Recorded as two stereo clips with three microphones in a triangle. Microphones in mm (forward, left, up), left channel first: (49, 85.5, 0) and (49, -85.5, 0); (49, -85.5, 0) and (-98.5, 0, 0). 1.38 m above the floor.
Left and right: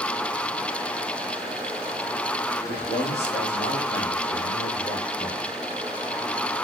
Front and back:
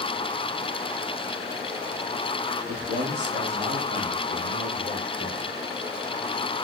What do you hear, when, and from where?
2.7 s a man speaking: 115° left, 2.5 m; by 5.5 s 135° left, 5.5 m